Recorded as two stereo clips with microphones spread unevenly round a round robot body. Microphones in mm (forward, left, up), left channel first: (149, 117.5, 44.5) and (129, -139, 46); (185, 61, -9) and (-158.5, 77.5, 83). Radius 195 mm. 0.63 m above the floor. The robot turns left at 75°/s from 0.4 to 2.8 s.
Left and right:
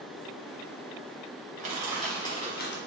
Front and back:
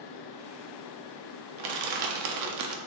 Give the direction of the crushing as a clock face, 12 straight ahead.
5 o'clock.